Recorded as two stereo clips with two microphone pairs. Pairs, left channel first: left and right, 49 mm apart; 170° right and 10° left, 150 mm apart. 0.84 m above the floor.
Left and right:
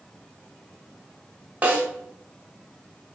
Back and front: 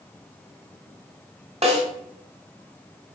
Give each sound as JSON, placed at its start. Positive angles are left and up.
{"t": 1.6, "sound": "a snare drum", "azimuth_deg": -35, "distance_m": 1.3}